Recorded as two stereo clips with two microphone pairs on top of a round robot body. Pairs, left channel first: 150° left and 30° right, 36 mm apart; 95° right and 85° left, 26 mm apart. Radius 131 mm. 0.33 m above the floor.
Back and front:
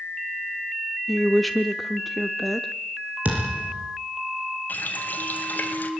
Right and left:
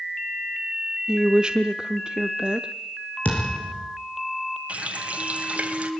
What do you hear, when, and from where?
1.1 s a woman speaking: 55° left, 1.1 m
3.2 s a thud: 75° right, 6 m
4.7 s a running tap: 115° left, 2 m